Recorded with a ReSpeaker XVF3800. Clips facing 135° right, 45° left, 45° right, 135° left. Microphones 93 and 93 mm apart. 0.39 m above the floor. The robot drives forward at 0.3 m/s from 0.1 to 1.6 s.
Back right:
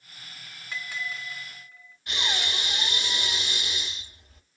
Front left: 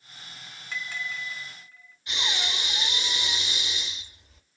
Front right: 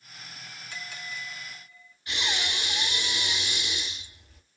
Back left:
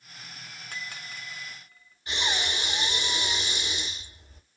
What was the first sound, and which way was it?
A bell, 145° left.